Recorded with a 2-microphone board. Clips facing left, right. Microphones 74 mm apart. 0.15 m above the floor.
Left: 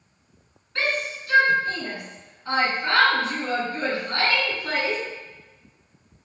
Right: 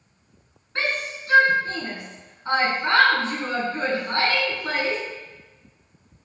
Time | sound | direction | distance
0.8 | a shout | 30° right (ahead or behind) | 1.2 m